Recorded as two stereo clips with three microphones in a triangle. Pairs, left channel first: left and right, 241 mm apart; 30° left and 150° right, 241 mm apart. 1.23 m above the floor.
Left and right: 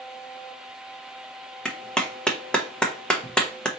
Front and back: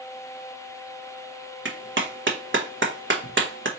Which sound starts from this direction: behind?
A clap, at 1.6 s.